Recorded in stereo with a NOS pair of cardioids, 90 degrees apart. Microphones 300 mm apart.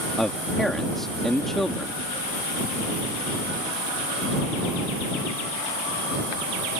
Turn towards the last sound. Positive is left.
turn(degrees=0)